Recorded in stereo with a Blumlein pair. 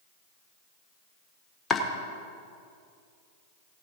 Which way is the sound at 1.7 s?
15° left.